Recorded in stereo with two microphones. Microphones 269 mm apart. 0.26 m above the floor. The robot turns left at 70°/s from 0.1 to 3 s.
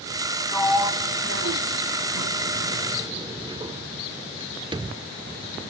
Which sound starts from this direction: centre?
A sliding door, at 0.5 s.